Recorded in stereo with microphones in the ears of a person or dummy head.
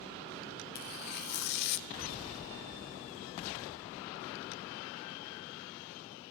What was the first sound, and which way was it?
Tearing paper, 50° left (ahead or behind).